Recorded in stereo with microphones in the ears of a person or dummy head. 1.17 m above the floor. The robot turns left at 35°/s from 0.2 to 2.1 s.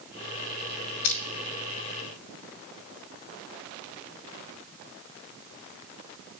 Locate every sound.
1.0 s crushing: 65° left (ahead or behind), 1.5 m; by 1.2 s 70° left (ahead or behind), 1.5 m